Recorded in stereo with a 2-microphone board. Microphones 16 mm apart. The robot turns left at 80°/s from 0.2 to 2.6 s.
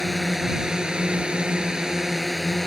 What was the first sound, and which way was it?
A drone, 5° right (ahead or behind).